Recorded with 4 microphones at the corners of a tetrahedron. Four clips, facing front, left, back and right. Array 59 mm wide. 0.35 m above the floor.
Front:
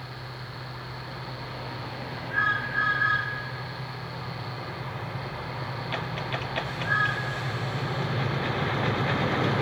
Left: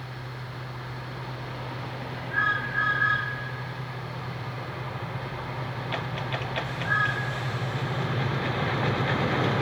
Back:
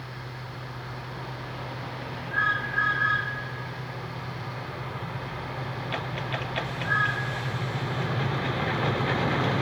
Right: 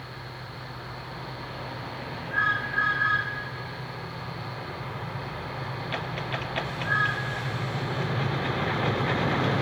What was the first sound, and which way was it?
Only background noise.